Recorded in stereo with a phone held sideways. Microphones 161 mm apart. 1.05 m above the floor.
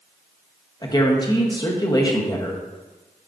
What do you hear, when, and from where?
0.8 s a woman speaking: 25° left (ahead or behind), 0.9 m